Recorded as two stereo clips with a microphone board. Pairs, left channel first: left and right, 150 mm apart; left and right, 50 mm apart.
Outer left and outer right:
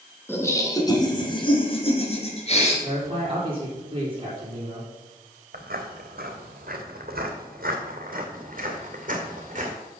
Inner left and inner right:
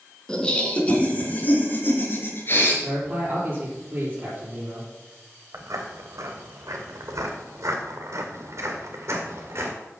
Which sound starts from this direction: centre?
Laughter, at 0.3 s.